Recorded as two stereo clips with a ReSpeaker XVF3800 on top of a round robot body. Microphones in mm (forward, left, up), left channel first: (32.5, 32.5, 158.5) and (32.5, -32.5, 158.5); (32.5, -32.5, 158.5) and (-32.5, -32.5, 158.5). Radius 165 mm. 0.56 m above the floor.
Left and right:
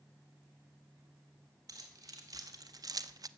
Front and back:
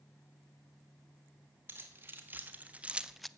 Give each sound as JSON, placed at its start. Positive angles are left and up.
{"t": 1.7, "sound": "keys jangling", "azimuth_deg": -125, "distance_m": 2.0}